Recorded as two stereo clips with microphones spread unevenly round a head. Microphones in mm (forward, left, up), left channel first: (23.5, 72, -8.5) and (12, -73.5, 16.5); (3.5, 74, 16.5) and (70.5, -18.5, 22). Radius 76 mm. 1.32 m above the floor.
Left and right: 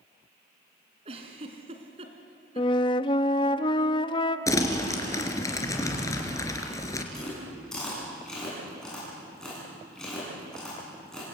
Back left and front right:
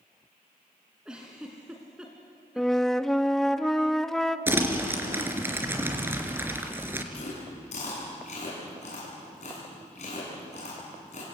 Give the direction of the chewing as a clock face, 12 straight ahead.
6 o'clock.